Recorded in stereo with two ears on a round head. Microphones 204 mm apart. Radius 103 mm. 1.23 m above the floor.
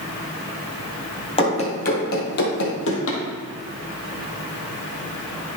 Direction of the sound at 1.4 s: 25° left (ahead or behind).